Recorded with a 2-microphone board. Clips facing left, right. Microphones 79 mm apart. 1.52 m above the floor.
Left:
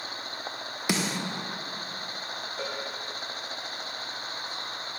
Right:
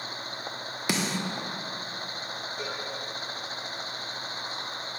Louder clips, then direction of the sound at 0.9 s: Even; centre (ahead or behind).